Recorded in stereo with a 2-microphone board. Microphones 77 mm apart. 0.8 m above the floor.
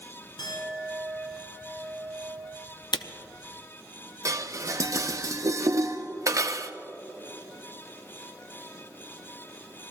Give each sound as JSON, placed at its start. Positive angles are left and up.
{"t": 0.4, "sound": "a clink", "side_deg": 75, "distance_m": 6.0}
{"t": 2.9, "sound": "a camera shutter", "side_deg": 85, "distance_m": 0.6}
{"t": 4.2, "sound": "dishes clattering", "side_deg": -45, "distance_m": 0.6}